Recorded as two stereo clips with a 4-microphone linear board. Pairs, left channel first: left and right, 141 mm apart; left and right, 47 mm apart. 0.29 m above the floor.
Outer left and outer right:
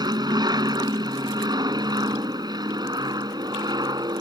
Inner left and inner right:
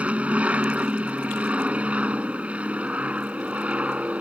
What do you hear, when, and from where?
0.0 s an aircraft: 30° right (ahead or behind)